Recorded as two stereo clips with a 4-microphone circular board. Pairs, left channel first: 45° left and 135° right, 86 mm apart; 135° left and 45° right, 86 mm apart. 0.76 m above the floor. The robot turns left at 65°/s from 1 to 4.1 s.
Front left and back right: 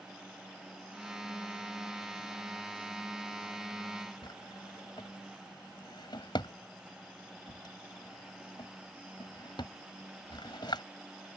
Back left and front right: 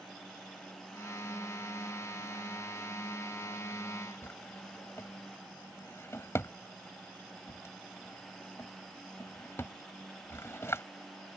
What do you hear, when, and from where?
4.2 s a drawer: 75° left